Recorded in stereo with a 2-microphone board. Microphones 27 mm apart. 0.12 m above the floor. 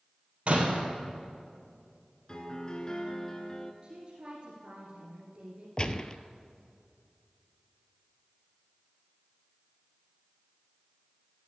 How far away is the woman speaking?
About 2 m.